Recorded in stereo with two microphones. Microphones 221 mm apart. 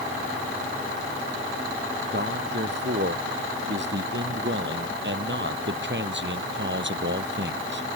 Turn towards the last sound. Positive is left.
turn(degrees=-50)  # may be behind; listen again after turning